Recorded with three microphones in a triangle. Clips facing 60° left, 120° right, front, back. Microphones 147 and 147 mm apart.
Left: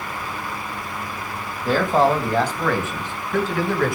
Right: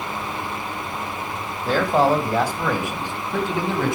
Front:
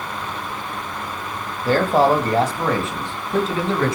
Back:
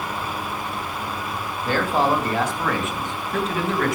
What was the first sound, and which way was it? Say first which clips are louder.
A man speaking: even, front 5 dB; 25° right.